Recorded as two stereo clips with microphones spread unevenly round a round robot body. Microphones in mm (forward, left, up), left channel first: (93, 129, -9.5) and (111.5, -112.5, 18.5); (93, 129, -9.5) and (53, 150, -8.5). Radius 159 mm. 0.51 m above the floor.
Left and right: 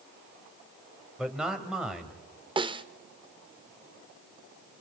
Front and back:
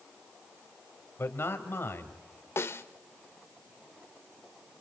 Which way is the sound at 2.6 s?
10° right.